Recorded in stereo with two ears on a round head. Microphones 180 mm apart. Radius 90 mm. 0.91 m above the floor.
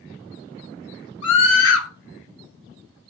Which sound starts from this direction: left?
A scream, at 1.2 s.